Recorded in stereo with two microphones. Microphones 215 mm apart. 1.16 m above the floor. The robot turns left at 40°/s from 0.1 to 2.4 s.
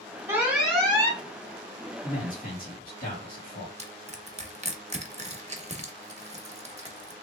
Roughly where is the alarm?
Behind.